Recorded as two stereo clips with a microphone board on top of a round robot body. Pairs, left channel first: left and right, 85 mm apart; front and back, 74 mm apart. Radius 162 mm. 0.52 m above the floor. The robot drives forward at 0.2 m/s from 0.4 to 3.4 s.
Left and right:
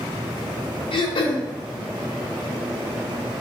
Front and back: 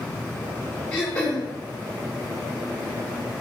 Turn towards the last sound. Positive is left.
turn(degrees=105)